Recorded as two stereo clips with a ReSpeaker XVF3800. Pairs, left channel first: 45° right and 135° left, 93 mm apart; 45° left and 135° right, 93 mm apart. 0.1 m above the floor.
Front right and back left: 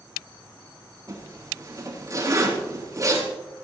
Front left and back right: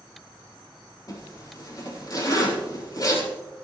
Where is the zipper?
90° left, 4.5 m.